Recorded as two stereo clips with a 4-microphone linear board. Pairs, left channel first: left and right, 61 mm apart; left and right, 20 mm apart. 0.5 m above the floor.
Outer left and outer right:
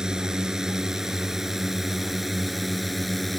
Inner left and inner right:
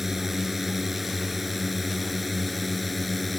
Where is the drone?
10° right (ahead or behind); by 3.4 s centre (ahead or behind).